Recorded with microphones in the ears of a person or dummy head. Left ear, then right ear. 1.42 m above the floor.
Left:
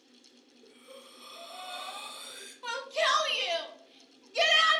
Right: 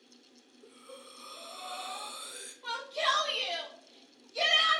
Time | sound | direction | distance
0.6 | breathing | 45° right (ahead or behind) | 1.7 m
2.6 | a shout | 35° left (ahead or behind) | 0.8 m